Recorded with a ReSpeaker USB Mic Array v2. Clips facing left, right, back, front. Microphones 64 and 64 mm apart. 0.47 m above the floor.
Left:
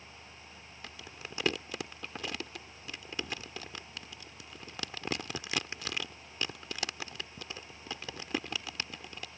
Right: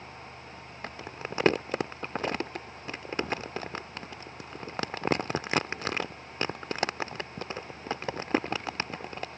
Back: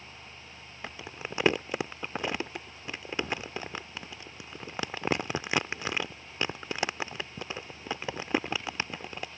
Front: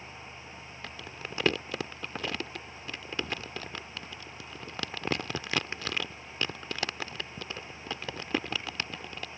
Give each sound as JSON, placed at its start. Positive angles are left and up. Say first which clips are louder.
{"t": 0.8, "sound": "crumpling", "louder": "right 9 dB, back 3 dB", "azimuth_deg": -115}